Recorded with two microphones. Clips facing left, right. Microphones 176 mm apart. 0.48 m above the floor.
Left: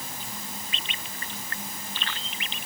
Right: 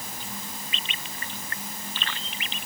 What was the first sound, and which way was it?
Only background noise.